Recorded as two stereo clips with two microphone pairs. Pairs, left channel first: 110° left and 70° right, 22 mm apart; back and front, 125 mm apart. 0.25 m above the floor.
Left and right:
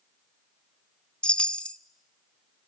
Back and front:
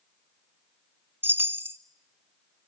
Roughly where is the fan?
I don't hear a fan.